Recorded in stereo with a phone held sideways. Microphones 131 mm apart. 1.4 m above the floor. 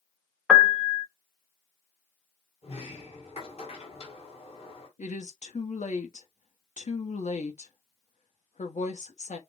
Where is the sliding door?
50° left (ahead or behind), 2.0 m.